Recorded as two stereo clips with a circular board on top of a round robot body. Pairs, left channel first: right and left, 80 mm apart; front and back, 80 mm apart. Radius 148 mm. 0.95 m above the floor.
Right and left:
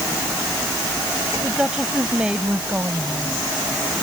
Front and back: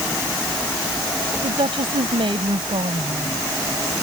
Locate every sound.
1.4 s a woman speaking: 170° left; by 3.4 s 165° left